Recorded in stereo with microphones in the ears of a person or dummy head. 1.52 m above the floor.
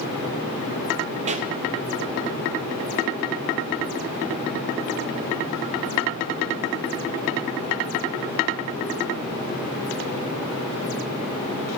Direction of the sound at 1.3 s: 35° right (ahead or behind).